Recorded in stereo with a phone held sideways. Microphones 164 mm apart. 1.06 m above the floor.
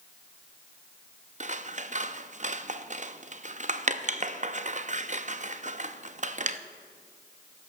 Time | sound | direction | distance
1.4 | scissors | 45° right (ahead or behind) | 0.6 m